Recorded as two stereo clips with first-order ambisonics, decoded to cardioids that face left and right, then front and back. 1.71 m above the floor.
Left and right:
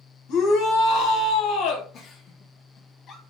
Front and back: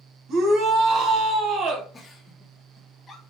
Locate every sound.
0.3 s a shout: 130° left, 1.5 m
1.9 s a giggle: 55° left, 1.0 m